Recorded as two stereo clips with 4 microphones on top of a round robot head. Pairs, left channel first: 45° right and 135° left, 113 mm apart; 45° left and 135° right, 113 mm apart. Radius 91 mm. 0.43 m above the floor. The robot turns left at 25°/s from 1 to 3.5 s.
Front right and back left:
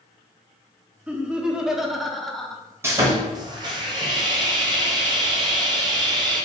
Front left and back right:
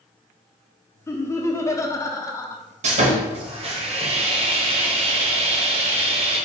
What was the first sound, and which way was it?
Laughter, 70° left.